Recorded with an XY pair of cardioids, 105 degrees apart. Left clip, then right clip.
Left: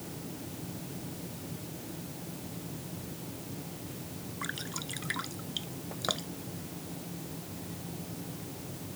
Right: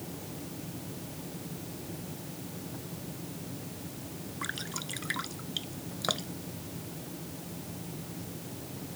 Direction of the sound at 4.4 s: 5° right.